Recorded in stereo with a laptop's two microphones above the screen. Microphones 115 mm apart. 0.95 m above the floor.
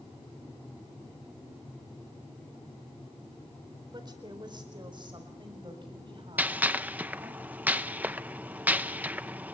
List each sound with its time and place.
3.9 s a woman speaking: 40° right (ahead or behind), 3.5 m; by 7.4 s 50° right (ahead or behind), 7 m
6.4 s a gunshot: 15° right (ahead or behind), 0.7 m